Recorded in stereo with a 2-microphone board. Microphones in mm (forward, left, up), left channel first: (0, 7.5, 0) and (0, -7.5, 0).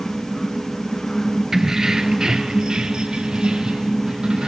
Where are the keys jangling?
30° right (ahead or behind), 1.9 m; by 4.5 s 80° right, 4.5 m.